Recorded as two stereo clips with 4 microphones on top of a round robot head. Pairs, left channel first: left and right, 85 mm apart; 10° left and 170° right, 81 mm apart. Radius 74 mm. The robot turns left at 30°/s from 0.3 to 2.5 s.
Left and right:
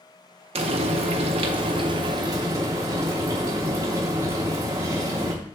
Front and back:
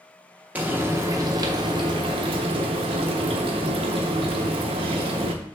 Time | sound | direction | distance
0.6 | frying | 95° right | 0.7 m